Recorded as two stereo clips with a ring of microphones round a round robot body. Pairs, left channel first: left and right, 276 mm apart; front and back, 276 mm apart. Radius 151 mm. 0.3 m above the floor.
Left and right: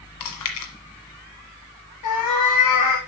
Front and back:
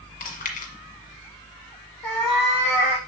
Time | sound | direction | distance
0.2 | chewing | 65° left | 1.4 m
2.0 | a cat meowing | 55° left | 4.5 m